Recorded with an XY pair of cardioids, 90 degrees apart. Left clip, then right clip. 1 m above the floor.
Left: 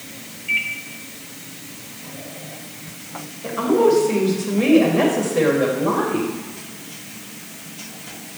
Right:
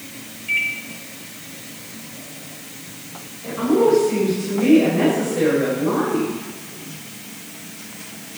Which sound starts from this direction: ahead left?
A woman speaking, at 3.4 s.